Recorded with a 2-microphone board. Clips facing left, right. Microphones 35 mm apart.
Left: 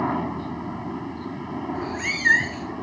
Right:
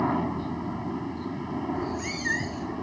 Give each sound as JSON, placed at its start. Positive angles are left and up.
{"t": 0.0, "sound": "a helicopter", "side_deg": 10}
{"t": 1.8, "sound": "a cat meowing", "side_deg": 55}